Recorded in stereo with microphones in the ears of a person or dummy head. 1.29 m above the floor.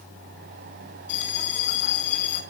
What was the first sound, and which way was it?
A bell, 65° left (ahead or behind).